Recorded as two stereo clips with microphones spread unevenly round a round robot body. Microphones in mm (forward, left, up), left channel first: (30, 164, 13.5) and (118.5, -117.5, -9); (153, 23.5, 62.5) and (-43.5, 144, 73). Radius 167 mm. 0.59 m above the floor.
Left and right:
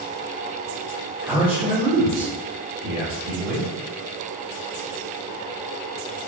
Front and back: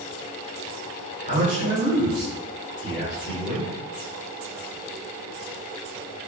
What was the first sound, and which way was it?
A man speaking, 155° right.